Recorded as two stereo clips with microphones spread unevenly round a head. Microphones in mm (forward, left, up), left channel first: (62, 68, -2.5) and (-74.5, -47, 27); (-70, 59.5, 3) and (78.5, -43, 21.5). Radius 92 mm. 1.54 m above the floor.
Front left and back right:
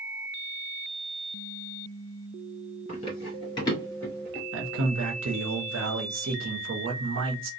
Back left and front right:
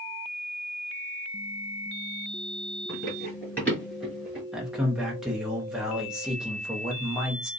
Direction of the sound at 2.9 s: 80° left.